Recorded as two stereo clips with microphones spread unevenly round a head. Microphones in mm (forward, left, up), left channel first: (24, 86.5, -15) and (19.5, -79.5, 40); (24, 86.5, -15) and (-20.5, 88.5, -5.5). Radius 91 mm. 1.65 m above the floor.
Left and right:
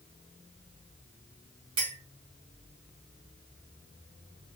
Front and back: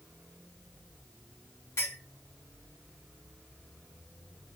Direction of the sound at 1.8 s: 45° right.